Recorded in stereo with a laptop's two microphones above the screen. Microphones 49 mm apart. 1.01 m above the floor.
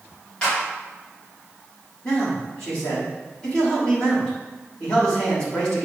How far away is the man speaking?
About 3 m.